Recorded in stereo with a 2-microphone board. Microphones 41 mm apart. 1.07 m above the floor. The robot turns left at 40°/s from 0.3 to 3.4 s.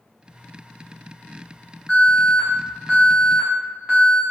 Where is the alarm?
30° left, 1.2 m; by 4.2 s 30° right, 1.2 m.